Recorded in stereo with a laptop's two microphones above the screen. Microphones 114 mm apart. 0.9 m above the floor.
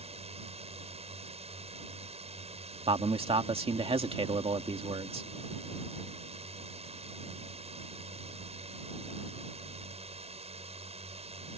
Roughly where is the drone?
Right.